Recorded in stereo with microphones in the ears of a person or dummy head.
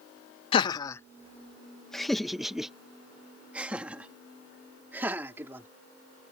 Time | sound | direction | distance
0.5 | laughter | 35° left (ahead or behind) | ?